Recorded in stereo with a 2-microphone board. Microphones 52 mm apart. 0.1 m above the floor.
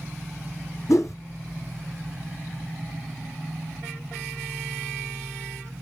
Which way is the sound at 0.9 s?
65° left (ahead or behind).